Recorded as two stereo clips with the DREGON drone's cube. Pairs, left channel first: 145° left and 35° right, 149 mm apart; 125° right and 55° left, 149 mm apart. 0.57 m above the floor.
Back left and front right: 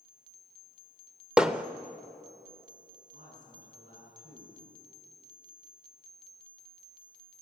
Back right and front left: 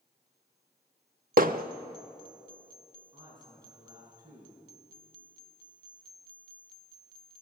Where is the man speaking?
10° right, 7 m.